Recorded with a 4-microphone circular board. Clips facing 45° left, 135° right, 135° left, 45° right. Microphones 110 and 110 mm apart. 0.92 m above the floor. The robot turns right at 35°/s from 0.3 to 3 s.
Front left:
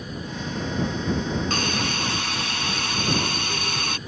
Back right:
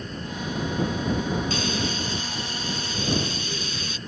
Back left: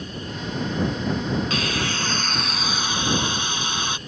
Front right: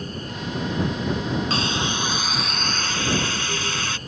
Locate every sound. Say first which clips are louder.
1.5 s a hiss: front left 1 dB, front right 1 dB; 10° left; by 4.0 s 65° left